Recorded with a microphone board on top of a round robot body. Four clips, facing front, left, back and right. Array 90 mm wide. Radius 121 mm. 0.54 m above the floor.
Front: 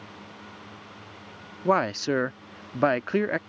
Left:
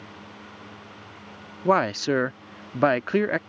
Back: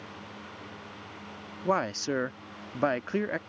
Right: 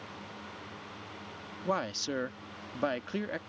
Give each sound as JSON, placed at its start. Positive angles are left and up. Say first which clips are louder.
{"t": 1.6, "sound": "a man speaking", "louder": "left 12 dB, front 5 dB", "azimuth_deg": 65}